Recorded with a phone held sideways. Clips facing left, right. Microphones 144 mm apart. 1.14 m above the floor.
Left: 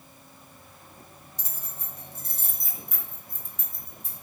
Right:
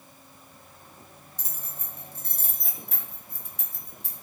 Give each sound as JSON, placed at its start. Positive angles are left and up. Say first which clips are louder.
{"t": 1.4, "sound": "keys jangling", "louder": "right 1 dB", "side_deg": -50, "distance_m": 2.5}